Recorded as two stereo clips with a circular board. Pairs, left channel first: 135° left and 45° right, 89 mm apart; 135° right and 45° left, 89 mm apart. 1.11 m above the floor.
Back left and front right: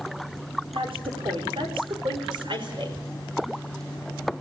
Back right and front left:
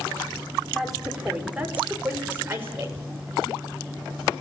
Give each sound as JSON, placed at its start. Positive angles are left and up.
{"t": 0.7, "sound": "a woman speaking", "azimuth_deg": -45, "distance_m": 3.5}